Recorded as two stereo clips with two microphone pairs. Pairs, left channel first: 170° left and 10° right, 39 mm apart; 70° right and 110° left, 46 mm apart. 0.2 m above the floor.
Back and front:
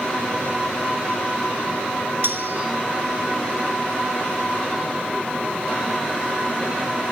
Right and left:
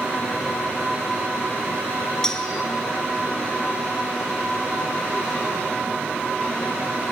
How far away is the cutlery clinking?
About 2.0 m.